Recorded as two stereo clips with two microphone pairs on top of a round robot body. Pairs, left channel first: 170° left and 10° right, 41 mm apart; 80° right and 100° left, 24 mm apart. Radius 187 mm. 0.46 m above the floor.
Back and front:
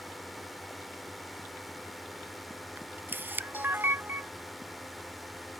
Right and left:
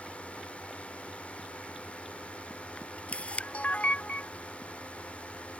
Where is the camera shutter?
45° right.